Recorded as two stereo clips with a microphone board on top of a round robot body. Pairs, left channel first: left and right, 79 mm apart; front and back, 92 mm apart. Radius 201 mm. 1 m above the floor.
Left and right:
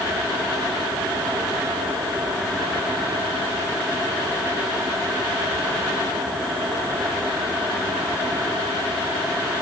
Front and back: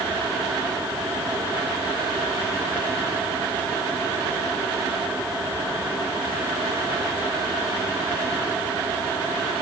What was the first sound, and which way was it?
Only background noise.